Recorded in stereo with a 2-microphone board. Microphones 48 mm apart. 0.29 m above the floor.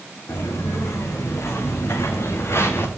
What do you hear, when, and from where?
0.3 s footsteps: 75° left (ahead or behind), 4 m; by 2.9 s 60° left (ahead or behind), 2 m